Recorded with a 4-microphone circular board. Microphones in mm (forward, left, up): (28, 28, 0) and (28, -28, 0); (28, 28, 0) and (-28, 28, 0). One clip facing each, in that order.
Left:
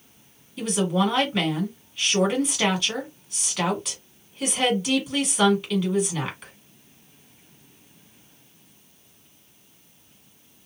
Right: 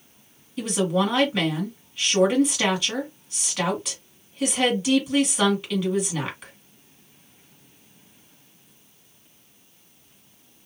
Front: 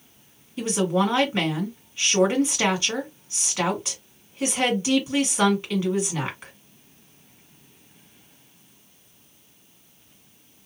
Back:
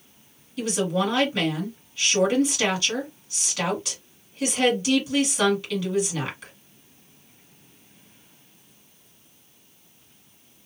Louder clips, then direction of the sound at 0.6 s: Even, front 2 dB; straight ahead.